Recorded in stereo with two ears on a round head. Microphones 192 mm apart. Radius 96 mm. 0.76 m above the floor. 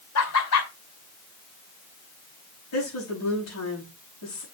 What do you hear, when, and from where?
0.1 s laughter: 80° left, 2.5 m
2.7 s a woman speaking: 80° left, 5.5 m